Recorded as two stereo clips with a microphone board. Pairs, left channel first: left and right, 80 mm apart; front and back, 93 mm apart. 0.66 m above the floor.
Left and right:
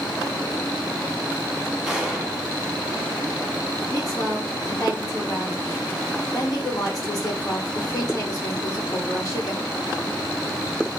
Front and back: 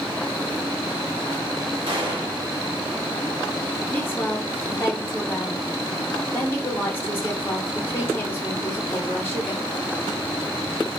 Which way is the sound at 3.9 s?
60° left.